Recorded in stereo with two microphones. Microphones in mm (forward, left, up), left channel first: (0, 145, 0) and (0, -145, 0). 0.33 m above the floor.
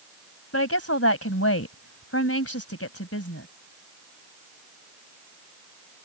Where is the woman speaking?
50° left (ahead or behind).